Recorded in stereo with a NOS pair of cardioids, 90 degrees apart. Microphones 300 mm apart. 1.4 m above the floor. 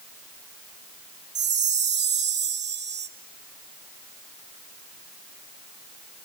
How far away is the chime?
About 1.2 m.